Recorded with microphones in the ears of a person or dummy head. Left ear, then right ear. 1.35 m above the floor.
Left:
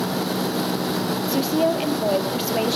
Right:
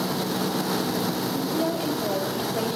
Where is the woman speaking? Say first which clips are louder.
Left 9 dB; 80° left, 1.0 m.